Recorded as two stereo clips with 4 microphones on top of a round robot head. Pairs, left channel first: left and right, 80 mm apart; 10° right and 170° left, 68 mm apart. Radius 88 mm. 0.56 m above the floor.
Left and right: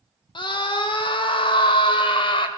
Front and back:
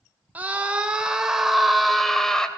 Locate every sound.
0.3 s a scream: 105° left, 2 m; by 2.5 s 70° left, 2.5 m